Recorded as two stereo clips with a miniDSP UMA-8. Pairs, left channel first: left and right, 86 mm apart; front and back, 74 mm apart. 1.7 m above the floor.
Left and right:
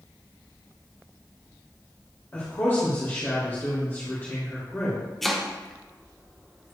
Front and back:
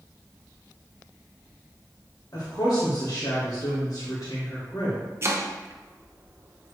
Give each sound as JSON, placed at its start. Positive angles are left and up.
{"t": 2.3, "sound": "a woman speaking", "azimuth_deg": 30, "distance_m": 2.0}
{"t": 5.2, "sound": "chopping", "azimuth_deg": 180, "distance_m": 0.8}